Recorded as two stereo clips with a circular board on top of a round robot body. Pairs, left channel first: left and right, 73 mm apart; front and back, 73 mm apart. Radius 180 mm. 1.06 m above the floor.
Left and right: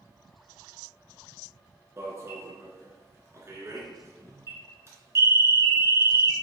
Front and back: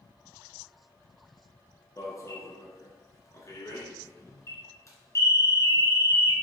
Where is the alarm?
40° right, 2.5 m.